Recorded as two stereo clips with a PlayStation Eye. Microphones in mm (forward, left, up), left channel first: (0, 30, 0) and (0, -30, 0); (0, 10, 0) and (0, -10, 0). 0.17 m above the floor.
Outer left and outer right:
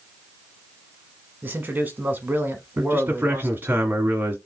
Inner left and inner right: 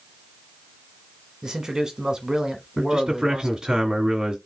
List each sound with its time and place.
1.4 s a man speaking: 30° right (ahead or behind), 1.2 m
2.8 s a man speaking: 30° right (ahead or behind), 1.7 m